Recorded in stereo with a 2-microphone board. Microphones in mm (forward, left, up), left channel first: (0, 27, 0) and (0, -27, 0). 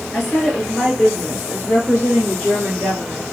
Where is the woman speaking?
5° left (ahead or behind), 1.7 m; by 3.2 s 50° right (ahead or behind), 2.5 m.